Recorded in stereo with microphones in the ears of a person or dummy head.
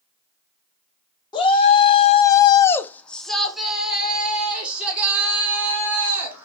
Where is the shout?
30° left (ahead or behind), 0.7 m; by 6.5 s 15° right (ahead or behind), 2 m.